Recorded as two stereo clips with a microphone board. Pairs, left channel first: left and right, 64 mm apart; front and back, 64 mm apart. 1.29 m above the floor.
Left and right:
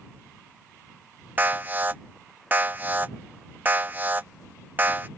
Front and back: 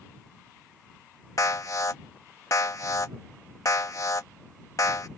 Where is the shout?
No shout in this recording.